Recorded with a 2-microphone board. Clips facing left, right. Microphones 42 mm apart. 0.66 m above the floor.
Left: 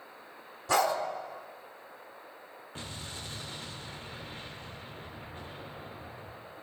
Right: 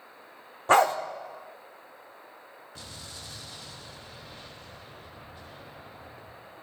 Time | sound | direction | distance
0.7 | a dog barking | 40° right (ahead or behind) | 0.7 m
2.8 | an explosion | 40° left (ahead or behind) | 0.8 m